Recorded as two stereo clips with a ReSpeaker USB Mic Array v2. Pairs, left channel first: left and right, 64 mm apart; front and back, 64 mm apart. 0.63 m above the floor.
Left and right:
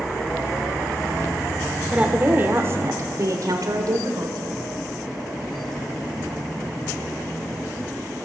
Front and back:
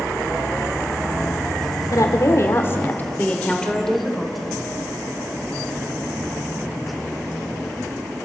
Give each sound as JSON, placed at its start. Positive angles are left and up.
{"t": 1.9, "sound": "a woman speaking", "azimuth_deg": -20, "distance_m": 2.0}